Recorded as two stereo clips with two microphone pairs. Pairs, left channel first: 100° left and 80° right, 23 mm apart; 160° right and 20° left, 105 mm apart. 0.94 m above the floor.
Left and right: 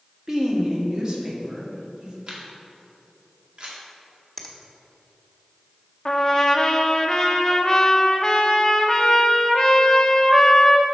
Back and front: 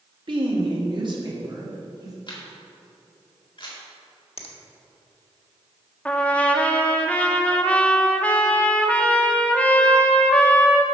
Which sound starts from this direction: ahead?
A woman speaking, at 0.3 s.